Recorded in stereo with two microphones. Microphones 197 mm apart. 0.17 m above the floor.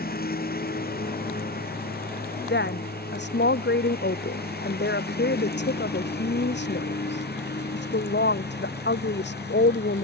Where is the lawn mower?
55° left (ahead or behind); by 10.0 s 65° left (ahead or behind).